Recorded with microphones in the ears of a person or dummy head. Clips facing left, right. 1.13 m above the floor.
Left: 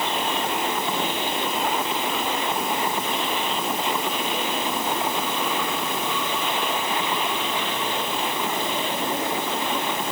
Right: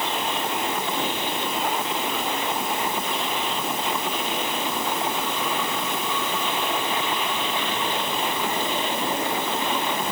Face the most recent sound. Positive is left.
No sound to turn to.